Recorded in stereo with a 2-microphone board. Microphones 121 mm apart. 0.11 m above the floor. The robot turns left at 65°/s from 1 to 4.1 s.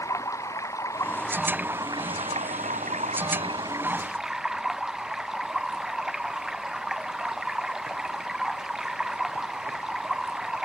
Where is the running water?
25° left; by 10.7 s 175° right.